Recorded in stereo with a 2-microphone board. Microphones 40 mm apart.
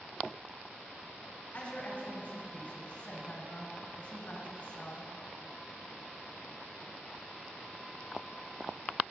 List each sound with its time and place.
1.5 s a woman speaking: 35° left (ahead or behind), 1.6 m